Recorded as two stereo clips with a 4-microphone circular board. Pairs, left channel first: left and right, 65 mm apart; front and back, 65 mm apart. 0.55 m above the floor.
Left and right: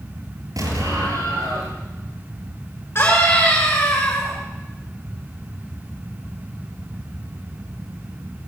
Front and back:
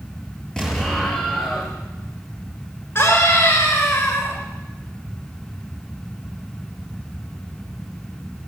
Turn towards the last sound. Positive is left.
turn(degrees=45)